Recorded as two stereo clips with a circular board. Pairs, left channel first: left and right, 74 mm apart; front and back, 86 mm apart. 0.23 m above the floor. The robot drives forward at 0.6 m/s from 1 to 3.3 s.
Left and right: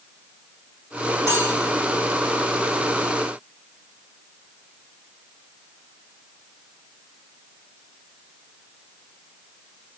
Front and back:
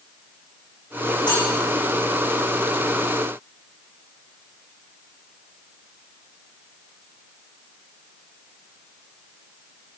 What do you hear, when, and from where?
1.3 s cutlery clinking: 35° right, 7 m